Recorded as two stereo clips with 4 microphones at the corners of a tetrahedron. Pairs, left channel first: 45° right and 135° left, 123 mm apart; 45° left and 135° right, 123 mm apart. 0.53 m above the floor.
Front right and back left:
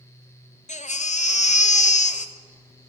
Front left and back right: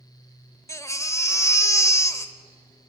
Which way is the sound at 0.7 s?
20° right.